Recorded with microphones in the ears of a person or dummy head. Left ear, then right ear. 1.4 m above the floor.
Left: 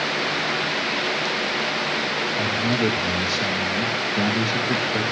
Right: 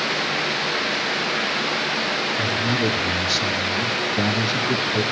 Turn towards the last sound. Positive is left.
turn(degrees=50)  # may be behind; listen again after turning